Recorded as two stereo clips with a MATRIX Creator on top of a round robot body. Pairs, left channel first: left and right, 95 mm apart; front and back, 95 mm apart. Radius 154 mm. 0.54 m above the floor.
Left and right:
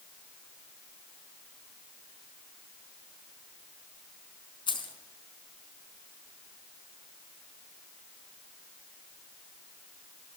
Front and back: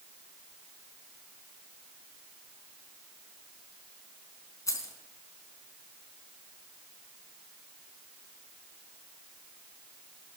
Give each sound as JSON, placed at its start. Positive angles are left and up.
{"t": 4.7, "sound": "keys jangling", "azimuth_deg": 55, "distance_m": 4.5}